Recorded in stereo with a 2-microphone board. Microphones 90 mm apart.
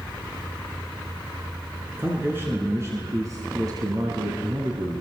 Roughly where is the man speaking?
Right.